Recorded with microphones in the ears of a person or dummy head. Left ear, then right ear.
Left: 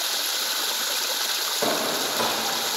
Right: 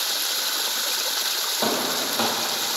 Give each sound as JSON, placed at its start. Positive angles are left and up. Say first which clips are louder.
{"t": 1.6, "sound": "footsteps", "louder": "even", "side_deg": -15, "distance_m": 2.5}